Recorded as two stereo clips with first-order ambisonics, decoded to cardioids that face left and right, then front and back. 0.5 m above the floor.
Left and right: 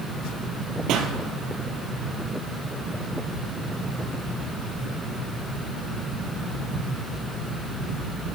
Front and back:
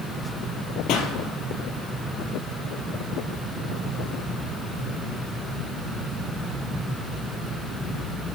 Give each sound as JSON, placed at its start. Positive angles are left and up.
{"t": 0.9, "sound": "a pop", "azimuth_deg": -40, "distance_m": 1.9}